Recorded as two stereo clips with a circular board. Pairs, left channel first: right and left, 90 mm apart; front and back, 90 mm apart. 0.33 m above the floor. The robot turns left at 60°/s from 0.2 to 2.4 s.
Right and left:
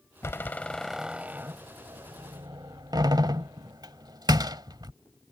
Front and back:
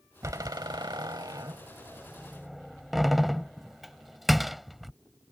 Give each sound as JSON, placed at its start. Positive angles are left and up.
{"t": 0.2, "sound": "a door slam", "azimuth_deg": -140}